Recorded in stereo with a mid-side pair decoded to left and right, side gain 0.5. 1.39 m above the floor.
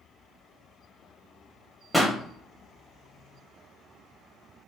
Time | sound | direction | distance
1.9 | a pop | straight ahead | 1.4 m